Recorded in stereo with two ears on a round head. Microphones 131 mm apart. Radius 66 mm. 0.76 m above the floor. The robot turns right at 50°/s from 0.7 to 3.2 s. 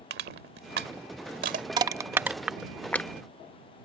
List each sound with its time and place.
0.1 s crushing: 80° right; by 1.7 s 50° right (ahead or behind)
1.8 s crushing: 30° right (ahead or behind); by 3.1 s 15° left (ahead or behind)